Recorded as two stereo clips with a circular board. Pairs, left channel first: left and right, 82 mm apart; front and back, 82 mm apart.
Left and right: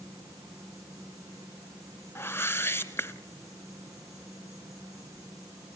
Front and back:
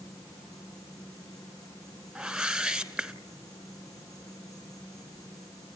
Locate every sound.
0.0 s an insect: 45° right, 8 m
2.1 s a whoosh: 105° left, 1.4 m